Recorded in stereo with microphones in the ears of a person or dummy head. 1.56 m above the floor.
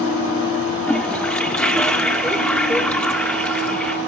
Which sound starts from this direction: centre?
A toilet flushing, at 0.9 s.